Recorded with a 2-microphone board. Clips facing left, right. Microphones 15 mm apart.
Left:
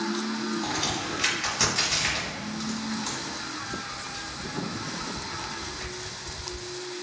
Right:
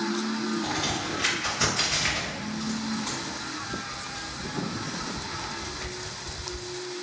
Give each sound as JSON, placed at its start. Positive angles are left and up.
{"t": 0.6, "sound": "a crack", "side_deg": 55, "distance_m": 1.5}